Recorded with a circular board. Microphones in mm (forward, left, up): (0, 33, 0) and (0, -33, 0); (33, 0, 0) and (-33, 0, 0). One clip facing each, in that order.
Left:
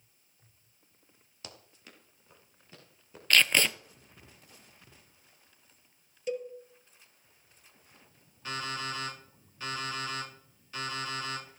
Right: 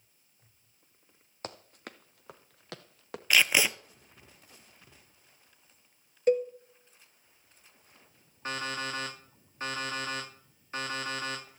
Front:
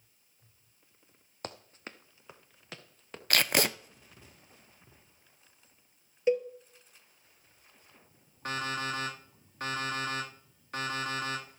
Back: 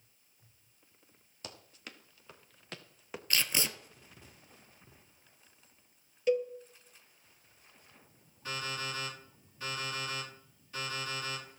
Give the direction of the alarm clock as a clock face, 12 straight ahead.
1 o'clock.